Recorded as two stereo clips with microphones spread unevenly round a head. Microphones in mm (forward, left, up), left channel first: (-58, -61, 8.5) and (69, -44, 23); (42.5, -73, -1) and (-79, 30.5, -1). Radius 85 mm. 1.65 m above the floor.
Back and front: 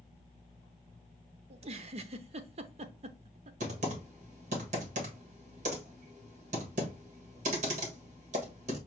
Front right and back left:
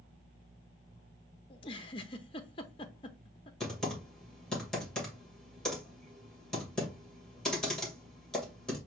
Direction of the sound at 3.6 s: 45° left.